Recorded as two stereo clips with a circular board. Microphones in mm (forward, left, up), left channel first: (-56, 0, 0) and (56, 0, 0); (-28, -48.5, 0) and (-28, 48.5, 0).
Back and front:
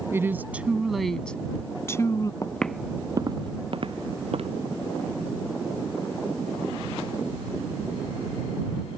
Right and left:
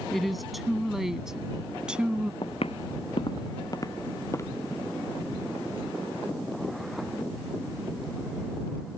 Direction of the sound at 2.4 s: 115° right.